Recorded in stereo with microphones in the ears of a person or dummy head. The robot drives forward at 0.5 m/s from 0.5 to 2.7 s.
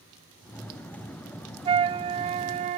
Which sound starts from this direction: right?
A flute, at 1.6 s.